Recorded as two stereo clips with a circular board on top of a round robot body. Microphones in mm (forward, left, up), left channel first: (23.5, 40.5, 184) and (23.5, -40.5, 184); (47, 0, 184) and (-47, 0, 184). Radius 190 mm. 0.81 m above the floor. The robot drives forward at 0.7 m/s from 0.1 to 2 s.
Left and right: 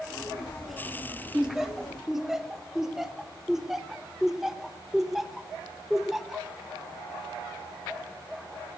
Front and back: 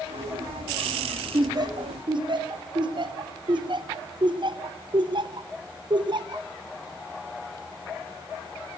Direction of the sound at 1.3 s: 170° right.